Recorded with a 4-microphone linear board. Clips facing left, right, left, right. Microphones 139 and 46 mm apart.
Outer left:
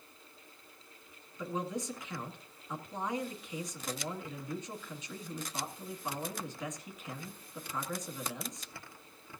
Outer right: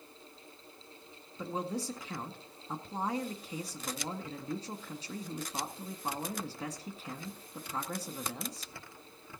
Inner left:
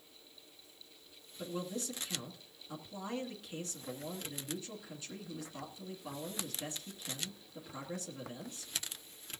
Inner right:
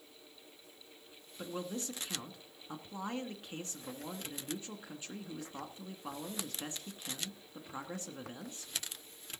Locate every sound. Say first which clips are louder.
1.4 s a man speaking: even, even; 35° right (ahead or behind), 1.9 m